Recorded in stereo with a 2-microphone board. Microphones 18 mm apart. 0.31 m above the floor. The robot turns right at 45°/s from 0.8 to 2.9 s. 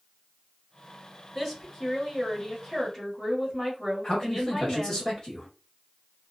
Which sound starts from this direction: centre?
A woman speaking, at 1.4 s.